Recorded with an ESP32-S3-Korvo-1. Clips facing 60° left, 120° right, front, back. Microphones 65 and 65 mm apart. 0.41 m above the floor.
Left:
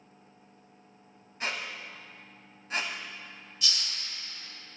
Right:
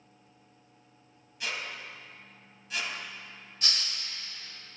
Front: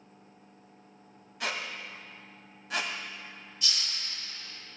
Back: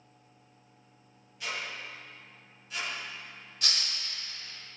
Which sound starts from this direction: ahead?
A squeak, at 1.4 s.